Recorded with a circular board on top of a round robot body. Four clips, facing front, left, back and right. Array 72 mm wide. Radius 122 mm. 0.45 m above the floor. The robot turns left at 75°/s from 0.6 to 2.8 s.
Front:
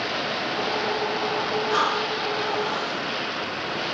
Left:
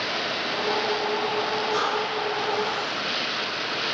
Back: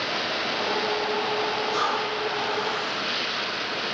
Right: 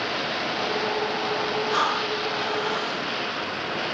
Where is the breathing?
40° right, 4 m; by 3.0 s 125° right, 4 m.